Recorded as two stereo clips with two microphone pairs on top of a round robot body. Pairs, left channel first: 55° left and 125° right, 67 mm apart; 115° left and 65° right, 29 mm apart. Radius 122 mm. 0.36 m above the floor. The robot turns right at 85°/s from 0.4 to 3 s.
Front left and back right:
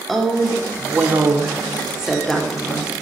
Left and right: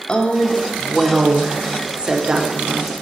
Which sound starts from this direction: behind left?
A woman speaking, at 0.1 s.